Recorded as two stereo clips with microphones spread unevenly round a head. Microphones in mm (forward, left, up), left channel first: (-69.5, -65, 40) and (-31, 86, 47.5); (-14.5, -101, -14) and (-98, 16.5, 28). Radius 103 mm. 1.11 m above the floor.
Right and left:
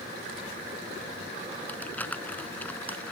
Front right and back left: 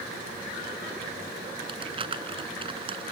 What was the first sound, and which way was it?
Crumpling, 175° left.